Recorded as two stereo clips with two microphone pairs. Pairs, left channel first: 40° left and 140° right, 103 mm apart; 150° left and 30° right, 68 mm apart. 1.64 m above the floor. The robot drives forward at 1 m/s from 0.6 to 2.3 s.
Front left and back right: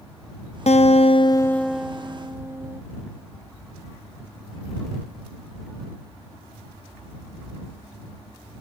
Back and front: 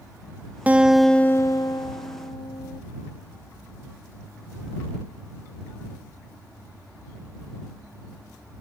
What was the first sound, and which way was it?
A guitar, 40° left.